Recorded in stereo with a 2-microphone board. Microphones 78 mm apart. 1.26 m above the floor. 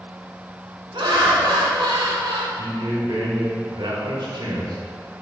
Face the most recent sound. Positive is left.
turn(degrees=-80)